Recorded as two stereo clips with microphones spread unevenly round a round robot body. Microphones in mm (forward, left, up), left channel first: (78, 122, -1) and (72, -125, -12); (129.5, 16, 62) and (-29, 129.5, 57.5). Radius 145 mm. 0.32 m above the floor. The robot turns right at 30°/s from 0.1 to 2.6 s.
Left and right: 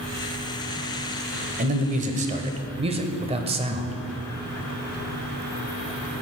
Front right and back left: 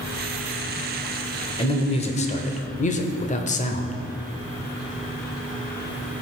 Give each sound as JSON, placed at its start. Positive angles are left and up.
{"t": 1.6, "sound": "a man speaking", "azimuth_deg": -80, "distance_m": 1.0}